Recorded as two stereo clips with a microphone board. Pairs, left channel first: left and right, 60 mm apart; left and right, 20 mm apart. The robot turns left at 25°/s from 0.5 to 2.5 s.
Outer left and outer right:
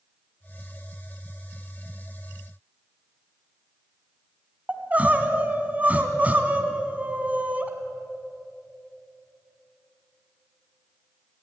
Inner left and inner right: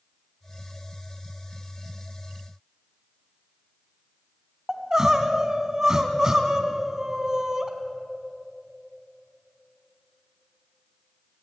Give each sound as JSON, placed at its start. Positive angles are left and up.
{"t": 4.7, "sound": "crying", "side_deg": -25, "distance_m": 1.7}